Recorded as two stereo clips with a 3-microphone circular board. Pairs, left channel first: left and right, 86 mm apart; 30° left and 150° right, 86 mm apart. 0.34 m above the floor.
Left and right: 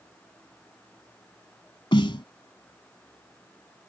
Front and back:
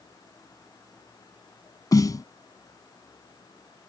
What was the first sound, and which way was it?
A snare drum, 75° left.